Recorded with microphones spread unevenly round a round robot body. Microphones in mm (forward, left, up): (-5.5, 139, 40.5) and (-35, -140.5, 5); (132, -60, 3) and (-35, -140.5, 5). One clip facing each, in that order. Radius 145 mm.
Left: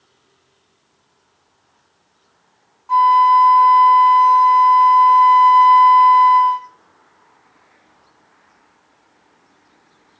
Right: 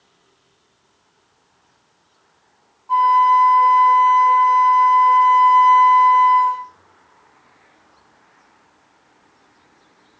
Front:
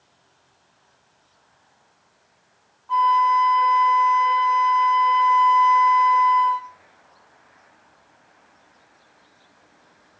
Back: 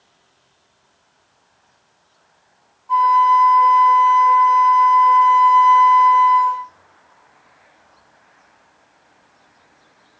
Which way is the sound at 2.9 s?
120° left.